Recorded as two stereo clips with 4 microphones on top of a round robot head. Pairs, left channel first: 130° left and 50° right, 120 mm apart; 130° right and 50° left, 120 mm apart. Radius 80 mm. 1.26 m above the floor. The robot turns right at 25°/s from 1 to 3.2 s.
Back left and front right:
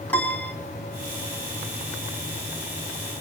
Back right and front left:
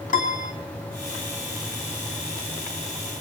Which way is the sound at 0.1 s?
150° right.